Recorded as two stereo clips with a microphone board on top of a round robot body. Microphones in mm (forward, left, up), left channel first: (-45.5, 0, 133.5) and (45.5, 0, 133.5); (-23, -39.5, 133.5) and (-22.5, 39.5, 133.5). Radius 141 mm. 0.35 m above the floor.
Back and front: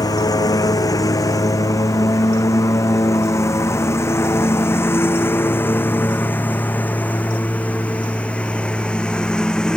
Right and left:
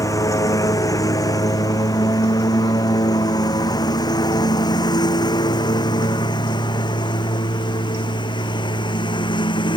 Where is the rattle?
No rattle in this recording.